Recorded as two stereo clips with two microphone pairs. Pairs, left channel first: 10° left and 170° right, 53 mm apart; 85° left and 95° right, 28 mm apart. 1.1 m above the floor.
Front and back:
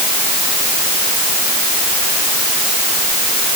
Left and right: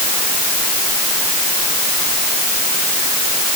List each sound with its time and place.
Only background noise.